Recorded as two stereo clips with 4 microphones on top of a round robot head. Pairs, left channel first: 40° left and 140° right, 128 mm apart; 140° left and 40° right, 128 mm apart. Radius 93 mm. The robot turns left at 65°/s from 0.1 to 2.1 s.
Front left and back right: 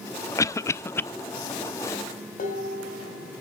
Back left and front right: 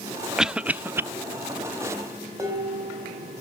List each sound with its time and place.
0.4 s a cough: 40° left, 0.5 m; by 1.0 s 5° right, 0.5 m
2.4 s dishes clattering: 25° left, 3.5 m